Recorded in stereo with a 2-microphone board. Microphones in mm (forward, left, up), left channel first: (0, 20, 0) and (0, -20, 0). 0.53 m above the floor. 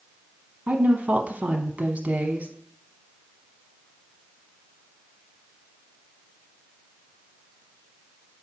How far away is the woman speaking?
About 0.9 m.